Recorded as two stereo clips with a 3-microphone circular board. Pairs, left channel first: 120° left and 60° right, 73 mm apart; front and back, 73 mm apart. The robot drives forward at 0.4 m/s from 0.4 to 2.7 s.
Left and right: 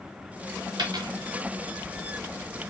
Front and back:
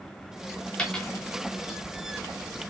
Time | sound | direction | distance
0.8 | a dropped coin | 75° right | 0.8 m